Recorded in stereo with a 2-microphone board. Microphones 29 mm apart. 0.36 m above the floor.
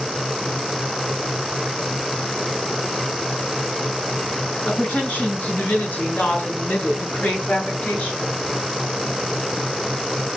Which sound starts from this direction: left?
A woman speaking, at 4.7 s.